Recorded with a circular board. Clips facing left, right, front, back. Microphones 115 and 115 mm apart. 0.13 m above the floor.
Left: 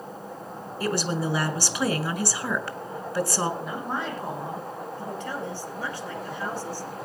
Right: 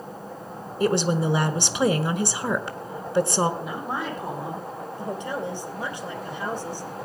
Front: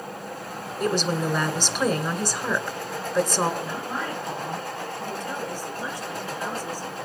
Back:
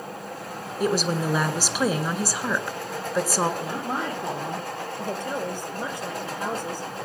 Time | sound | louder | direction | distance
0.8 | a woman speaking | right 5 dB, back 1 dB | 105° right | 1.1 m
3.6 | a woman speaking | right 1 dB, back 2 dB | 175° right | 5 m
5.0 | a woman speaking | right 5 dB, back 5 dB | 160° right | 3 m